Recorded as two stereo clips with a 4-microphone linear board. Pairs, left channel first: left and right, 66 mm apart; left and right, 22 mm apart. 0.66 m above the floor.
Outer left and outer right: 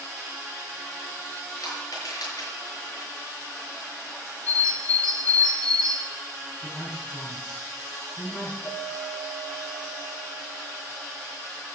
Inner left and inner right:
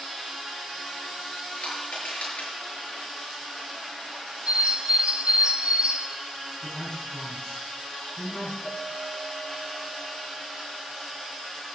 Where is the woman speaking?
30° left (ahead or behind), 5 m.